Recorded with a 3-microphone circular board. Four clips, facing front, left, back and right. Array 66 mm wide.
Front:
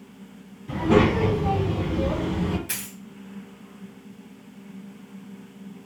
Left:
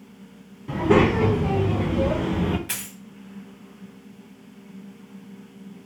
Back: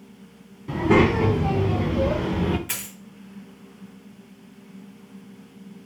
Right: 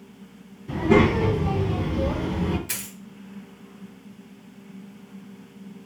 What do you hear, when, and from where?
0.7 s a child speaking: 130° left, 2.0 m; by 2.6 s 145° left, 0.6 m
2.7 s a dropped coin: 110° left, 1.3 m